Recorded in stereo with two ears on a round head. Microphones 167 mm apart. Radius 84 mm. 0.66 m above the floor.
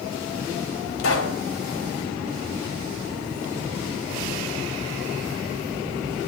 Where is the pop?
75° left (ahead or behind), 3.5 m.